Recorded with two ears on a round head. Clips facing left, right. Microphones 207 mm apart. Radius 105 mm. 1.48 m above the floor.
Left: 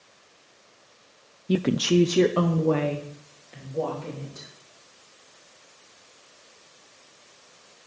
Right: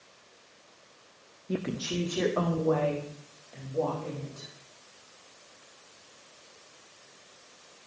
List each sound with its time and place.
1.5 s a woman speaking: 45° left (ahead or behind), 0.6 m; by 4.5 s 20° left (ahead or behind), 4 m